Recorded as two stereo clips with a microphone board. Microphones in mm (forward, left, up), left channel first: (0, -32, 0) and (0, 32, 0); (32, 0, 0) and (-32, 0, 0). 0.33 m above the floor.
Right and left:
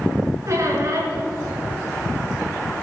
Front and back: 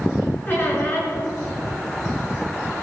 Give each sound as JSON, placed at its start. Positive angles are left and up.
{"t": 0.5, "sound": "a squeak", "azimuth_deg": 60, "distance_m": 2.5}